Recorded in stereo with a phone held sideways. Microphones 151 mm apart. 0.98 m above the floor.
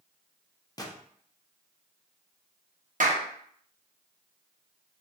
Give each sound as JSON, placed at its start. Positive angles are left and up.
{"t": 0.8, "sound": "a gunshot", "side_deg": 25, "distance_m": 0.6}
{"t": 3.0, "sound": "a clap", "side_deg": -55, "distance_m": 0.7}